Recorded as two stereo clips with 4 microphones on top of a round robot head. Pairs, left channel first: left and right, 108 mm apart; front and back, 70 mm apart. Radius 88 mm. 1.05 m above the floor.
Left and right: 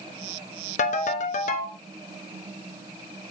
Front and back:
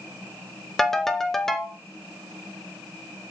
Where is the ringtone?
85° left, 0.6 m.